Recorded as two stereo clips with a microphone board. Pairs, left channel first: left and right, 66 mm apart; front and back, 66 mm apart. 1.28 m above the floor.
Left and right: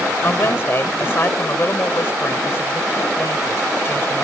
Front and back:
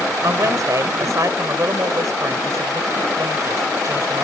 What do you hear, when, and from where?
0.2 s a woman speaking: 140° left